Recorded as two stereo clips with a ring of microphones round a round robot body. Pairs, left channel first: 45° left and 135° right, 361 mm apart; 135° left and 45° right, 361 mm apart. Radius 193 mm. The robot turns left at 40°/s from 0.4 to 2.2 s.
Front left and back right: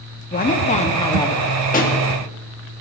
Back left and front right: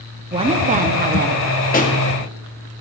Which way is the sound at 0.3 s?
10° left.